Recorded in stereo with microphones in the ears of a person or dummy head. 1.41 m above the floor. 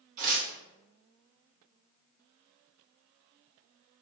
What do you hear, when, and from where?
0.2 s tearing paper: 50° right (ahead or behind), 1.0 m